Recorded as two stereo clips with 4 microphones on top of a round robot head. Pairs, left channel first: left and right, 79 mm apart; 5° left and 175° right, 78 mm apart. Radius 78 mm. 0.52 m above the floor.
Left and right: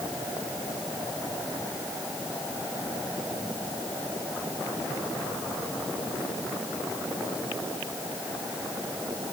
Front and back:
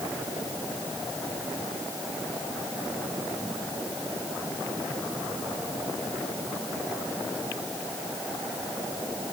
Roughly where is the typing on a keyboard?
I don't hear typing on a keyboard.